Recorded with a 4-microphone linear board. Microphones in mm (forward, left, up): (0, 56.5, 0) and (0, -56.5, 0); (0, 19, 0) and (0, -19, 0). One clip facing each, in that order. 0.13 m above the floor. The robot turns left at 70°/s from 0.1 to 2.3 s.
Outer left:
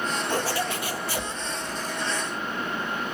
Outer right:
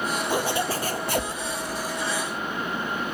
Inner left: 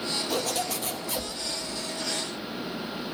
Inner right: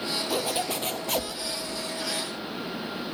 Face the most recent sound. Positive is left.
turn(degrees=-150)